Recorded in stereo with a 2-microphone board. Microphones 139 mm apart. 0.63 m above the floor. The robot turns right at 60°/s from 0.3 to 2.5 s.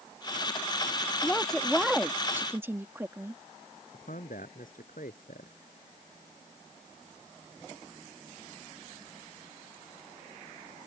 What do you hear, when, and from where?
1.2 s a woman speaking: 10° left (ahead or behind); by 3.4 s 15° right (ahead or behind)
3.9 s a man speaking: 80° left